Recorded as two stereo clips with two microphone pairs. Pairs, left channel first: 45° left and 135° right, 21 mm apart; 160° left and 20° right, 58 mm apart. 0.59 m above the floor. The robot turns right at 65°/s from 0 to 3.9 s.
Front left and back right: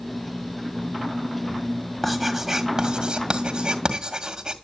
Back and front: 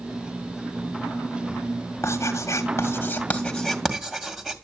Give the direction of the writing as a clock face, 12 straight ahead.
8 o'clock.